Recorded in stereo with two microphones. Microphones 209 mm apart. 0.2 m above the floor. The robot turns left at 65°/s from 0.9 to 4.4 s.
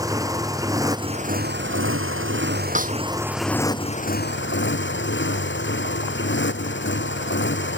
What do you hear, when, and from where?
0.0 s a motorcycle: 15° right; by 7.8 s 115° left
2.8 s a snare drum: 40° right (ahead or behind); by 3.0 s 50° right (ahead or behind)